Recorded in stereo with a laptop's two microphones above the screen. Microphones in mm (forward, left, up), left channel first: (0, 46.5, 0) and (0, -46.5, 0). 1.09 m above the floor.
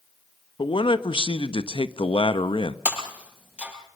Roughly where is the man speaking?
Left.